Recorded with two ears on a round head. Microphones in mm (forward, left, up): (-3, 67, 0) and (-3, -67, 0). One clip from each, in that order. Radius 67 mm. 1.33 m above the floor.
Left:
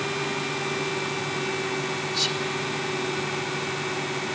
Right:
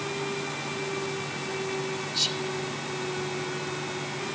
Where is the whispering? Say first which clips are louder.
Left 1 dB; 5° right (ahead or behind).